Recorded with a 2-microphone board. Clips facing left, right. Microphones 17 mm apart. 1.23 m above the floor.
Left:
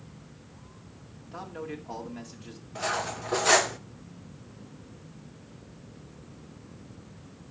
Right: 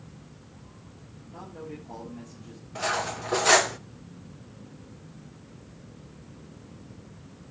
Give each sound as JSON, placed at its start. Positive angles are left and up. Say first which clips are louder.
{"t": 1.3, "sound": "a man speaking", "louder": "left 3 dB", "side_deg": 85, "distance_m": 2.5}
{"t": 2.8, "sound": "cutlery clinking", "louder": "right 2 dB", "side_deg": -10, "distance_m": 0.5}